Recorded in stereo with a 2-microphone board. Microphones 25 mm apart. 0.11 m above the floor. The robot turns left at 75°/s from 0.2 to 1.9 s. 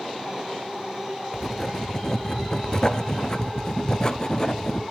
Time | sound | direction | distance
1.3 | writing | 175° right | 0.7 m